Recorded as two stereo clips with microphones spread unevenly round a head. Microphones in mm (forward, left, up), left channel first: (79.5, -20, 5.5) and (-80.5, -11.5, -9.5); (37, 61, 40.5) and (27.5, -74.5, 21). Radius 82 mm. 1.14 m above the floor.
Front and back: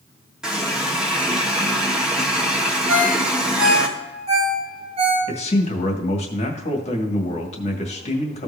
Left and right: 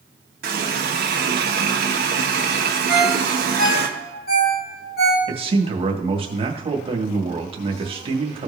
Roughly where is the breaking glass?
No breaking glass in this recording.